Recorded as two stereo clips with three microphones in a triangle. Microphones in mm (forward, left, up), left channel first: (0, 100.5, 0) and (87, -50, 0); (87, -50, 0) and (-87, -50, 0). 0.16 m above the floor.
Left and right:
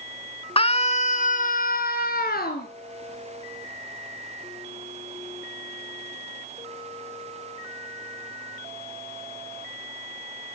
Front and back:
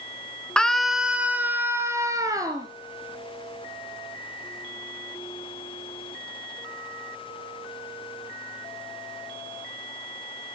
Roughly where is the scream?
Left.